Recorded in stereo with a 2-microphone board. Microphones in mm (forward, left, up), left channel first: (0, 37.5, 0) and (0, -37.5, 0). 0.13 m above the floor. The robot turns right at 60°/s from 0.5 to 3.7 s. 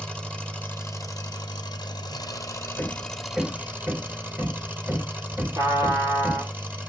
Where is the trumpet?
50° right (ahead or behind), 1.4 m.